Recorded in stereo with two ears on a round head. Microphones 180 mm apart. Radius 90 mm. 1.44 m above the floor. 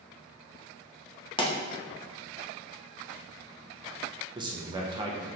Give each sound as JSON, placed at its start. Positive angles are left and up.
{"t": 1.4, "sound": "a pop", "side_deg": 25, "distance_m": 0.8}
{"t": 4.3, "sound": "a man speaking", "side_deg": -25, "distance_m": 0.7}